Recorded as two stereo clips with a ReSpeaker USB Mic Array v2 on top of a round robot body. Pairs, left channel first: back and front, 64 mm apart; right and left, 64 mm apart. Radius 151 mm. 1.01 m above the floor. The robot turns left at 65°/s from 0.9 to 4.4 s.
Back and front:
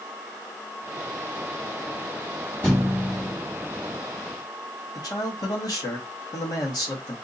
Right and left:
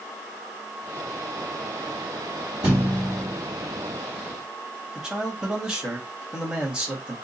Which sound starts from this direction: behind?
A man speaking, at 5.0 s.